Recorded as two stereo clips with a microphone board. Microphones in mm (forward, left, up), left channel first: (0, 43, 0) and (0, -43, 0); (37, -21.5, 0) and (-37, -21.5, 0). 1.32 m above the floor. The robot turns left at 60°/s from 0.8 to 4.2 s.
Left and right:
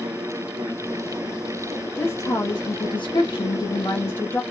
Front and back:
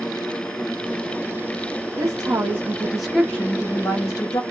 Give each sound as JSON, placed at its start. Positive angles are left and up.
{"t": 2.0, "sound": "a woman speaking", "azimuth_deg": 155, "distance_m": 0.8}